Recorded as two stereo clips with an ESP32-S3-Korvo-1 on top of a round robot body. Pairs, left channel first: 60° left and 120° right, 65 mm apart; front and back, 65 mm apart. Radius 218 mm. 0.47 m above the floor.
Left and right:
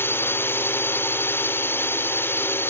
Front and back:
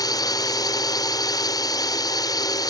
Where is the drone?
5° left.